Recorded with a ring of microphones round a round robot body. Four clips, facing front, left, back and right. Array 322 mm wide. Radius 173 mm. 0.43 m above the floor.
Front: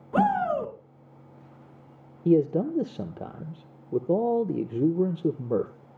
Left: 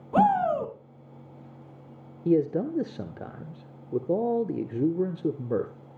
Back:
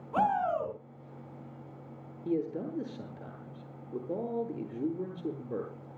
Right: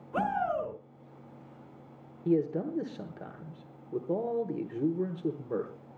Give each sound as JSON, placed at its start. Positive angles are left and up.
{"t": 0.1, "sound": "a shout", "azimuth_deg": 65, "distance_m": 4.0}
{"t": 2.2, "sound": "a man speaking", "azimuth_deg": 30, "distance_m": 1.1}